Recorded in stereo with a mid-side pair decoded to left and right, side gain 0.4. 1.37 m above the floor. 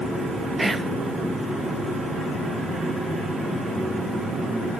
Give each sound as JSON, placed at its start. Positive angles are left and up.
{"t": 0.6, "sound": "whispering", "azimuth_deg": -20, "distance_m": 1.4}